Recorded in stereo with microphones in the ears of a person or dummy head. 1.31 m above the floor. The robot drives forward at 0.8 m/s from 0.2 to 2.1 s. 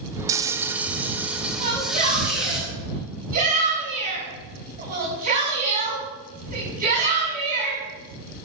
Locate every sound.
0.3 s frying: 20° right (ahead or behind), 0.6 m; by 2.6 s 5° right (ahead or behind), 1.8 m
1.6 s a shout: 50° right (ahead or behind), 8.5 m